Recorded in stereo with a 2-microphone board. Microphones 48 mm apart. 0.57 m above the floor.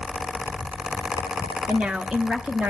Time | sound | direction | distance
1.7 | a woman speaking | 20° right (ahead or behind) | 1.1 m